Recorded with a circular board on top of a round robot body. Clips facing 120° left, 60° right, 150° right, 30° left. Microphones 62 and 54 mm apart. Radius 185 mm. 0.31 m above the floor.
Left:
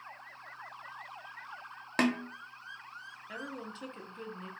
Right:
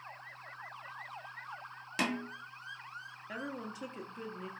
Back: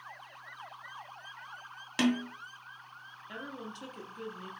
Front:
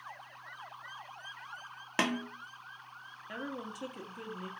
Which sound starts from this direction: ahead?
A woman speaking, at 3.3 s.